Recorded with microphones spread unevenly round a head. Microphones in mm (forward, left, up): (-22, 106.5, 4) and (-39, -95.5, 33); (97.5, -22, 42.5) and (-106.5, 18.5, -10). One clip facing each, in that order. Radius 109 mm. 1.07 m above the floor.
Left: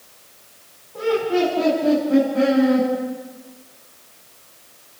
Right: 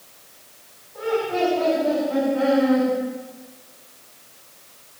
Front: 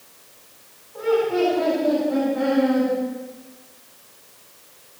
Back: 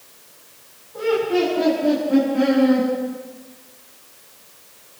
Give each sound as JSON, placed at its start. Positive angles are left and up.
{"t": 0.9, "sound": "laughter", "azimuth_deg": 120, "distance_m": 8.5}